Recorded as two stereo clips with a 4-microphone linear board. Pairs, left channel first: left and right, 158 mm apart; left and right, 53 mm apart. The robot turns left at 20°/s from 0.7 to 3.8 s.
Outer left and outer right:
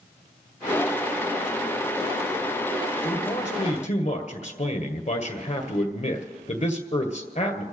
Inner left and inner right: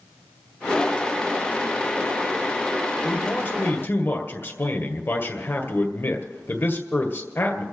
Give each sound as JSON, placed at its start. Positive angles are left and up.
{"t": 3.0, "sound": "a man speaking", "side_deg": 45, "distance_m": 1.7}